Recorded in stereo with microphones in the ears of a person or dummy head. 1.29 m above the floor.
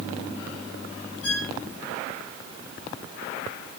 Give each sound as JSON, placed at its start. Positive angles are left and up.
{"t": 1.2, "sound": "a violin", "side_deg": 80, "distance_m": 3.5}